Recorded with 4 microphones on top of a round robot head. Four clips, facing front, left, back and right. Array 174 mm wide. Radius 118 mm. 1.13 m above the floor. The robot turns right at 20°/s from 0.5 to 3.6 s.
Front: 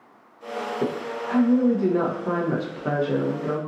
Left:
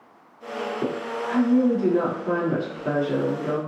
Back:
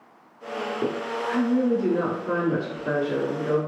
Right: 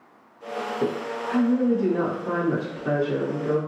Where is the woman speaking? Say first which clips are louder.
Right 2 dB, back 1 dB; 30° right, 1.1 m; by 3.6 s 25° left, 1.1 m.